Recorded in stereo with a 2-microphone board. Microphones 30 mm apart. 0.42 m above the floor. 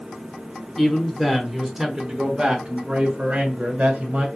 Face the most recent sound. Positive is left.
turn(degrees=-55)  # may be behind; listen again after turning